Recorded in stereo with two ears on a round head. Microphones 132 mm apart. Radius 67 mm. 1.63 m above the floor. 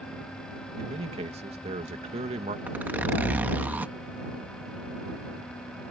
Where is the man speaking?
45° right (ahead or behind).